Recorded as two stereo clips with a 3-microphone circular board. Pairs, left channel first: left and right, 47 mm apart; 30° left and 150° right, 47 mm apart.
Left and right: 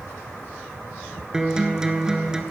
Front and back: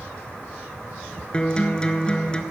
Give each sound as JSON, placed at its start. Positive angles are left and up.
{"t": 1.3, "sound": "a guitar", "azimuth_deg": -25, "distance_m": 0.6}